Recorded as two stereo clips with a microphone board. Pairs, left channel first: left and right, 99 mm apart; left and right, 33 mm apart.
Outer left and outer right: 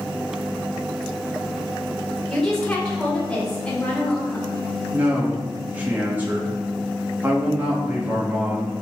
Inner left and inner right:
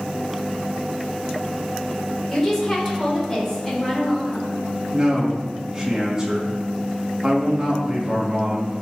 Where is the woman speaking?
10° left (ahead or behind), 4.5 m.